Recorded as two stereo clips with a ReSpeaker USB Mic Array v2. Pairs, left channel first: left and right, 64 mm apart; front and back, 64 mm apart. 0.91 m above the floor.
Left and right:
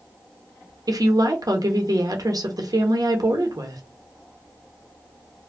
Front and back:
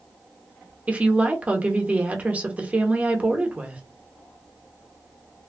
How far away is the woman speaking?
About 0.8 m.